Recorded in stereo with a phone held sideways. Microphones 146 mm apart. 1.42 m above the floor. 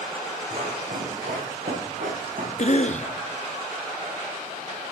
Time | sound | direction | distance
0.5 | running footsteps | 65° right (ahead or behind) | 5.5 m
2.6 | a cough | 55° left (ahead or behind) | 0.7 m